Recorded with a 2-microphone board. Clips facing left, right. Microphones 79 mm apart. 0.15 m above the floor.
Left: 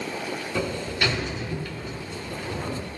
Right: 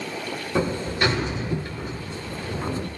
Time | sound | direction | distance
0.6 | a sliding door | 35° right (ahead or behind) | 1.0 m